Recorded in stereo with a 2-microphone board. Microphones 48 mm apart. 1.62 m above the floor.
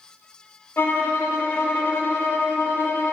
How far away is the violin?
About 1.2 m.